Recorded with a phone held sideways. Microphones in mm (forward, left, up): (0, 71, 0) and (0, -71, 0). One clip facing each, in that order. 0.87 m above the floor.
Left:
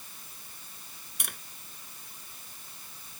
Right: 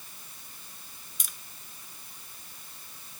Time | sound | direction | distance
1.2 | tapping | 65° left (ahead or behind) | ?